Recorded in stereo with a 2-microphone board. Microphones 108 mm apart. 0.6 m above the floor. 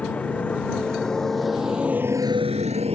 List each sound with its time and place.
0.0 s a motorcycle: 15° left (ahead or behind); by 3.0 s 65° right (ahead or behind)